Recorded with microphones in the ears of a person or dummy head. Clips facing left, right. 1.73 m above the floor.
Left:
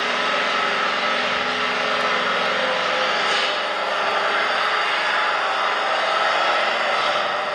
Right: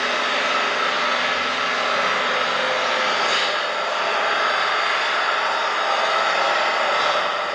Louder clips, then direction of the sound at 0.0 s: Even; 15° left (ahead or behind).